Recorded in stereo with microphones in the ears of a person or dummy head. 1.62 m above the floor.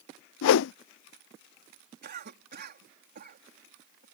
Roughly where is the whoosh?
Left.